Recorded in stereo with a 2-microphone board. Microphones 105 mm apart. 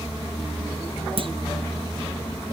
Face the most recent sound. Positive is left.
turn(degrees=-55)  # may be behind; listen again after turning